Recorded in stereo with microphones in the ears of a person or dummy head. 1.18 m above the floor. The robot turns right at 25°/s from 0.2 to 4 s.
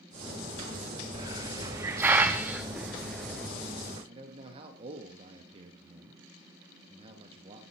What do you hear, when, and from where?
1.1 s a hiss: 15° right (ahead or behind), 0.6 m; by 3.5 s 5° left (ahead or behind), 0.6 m
4.1 s a man speaking: 30° right (ahead or behind), 1.5 m